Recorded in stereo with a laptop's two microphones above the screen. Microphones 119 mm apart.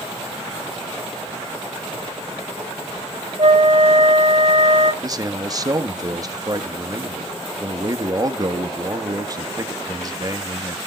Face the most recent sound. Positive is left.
turn(degrees=-30)  # may be behind; listen again after turning